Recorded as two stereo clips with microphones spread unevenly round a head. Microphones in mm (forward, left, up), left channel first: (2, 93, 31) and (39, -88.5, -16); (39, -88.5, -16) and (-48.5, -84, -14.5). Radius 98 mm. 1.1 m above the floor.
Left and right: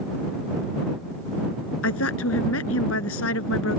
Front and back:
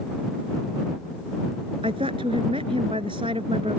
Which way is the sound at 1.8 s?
120° left.